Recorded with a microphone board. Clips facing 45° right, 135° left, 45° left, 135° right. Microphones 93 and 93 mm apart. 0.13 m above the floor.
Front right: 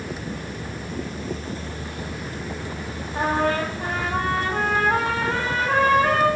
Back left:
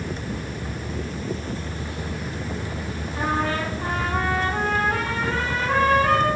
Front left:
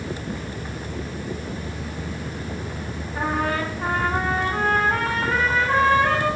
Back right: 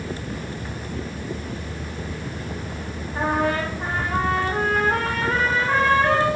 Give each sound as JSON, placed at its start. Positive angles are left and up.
{"t": 3.1, "sound": "a trumpet", "azimuth_deg": -80, "distance_m": 7.0}